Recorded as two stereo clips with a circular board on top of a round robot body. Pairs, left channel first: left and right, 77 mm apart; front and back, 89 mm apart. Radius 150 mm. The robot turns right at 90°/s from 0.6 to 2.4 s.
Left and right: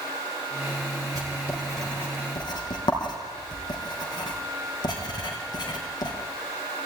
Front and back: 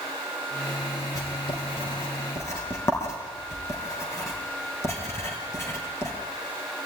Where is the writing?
50° right, 5 m; by 6.1 s 60° left, 5 m.